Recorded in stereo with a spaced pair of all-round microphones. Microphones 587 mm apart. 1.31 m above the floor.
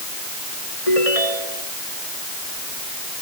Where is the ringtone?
75° left (ahead or behind).